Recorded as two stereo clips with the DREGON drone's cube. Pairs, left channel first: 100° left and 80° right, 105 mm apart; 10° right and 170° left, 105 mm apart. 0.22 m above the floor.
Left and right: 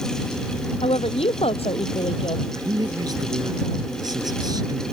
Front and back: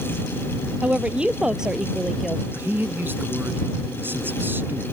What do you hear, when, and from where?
0.8 s a woman speaking: 90° left; by 2.4 s 75° left
2.5 s a man speaking: 120° right